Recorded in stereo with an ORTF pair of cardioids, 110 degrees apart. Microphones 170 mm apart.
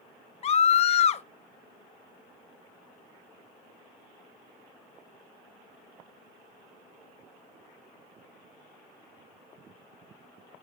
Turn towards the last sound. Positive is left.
turn(degrees=40)